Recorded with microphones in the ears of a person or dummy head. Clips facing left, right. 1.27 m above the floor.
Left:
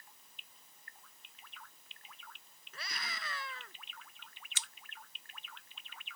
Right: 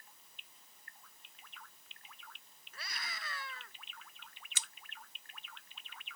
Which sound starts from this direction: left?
A scream, at 2.7 s.